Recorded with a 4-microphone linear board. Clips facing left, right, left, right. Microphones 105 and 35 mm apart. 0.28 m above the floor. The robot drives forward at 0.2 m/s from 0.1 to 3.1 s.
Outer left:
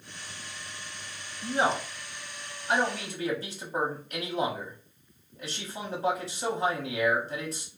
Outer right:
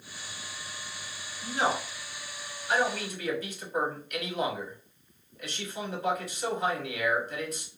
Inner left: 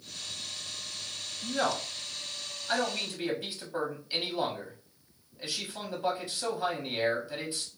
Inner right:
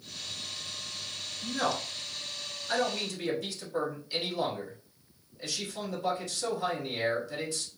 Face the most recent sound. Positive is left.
turn(degrees=30)  # may be behind; listen again after turning